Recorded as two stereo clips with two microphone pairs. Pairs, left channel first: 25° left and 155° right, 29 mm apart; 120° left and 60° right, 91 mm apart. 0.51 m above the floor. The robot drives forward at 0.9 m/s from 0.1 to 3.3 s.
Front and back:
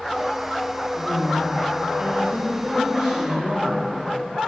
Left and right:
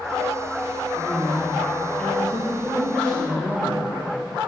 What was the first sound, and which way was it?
A woman speaking, 155° right.